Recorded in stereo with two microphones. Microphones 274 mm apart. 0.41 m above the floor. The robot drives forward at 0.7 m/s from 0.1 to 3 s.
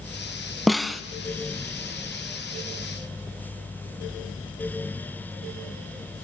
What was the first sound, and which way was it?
A snare drum, centre (ahead or behind).